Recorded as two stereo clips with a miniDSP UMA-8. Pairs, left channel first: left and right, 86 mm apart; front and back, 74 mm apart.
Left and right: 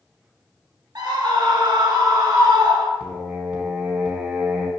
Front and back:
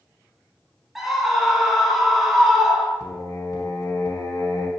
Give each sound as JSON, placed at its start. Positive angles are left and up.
{"t": 0.9, "sound": "a scream", "azimuth_deg": -90, "distance_m": 1.8}
{"t": 3.0, "sound": "singing", "azimuth_deg": -15, "distance_m": 1.3}